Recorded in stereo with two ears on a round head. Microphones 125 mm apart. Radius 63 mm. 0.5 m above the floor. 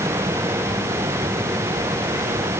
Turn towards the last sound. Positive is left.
No sound to turn to.